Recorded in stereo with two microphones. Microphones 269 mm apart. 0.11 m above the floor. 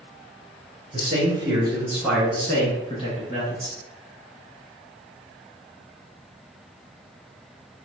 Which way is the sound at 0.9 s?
30° right (ahead or behind).